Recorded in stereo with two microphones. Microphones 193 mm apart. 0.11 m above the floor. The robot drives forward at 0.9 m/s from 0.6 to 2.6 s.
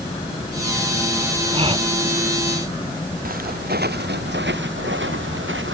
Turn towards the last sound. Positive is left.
turn(degrees=-90)